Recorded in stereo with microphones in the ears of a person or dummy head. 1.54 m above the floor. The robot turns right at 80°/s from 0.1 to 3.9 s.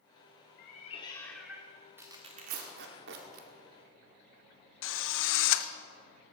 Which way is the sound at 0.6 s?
110° left.